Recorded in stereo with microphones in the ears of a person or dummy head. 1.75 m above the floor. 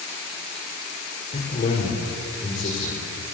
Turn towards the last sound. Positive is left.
turn(degrees=35)  # may be behind; listen again after turning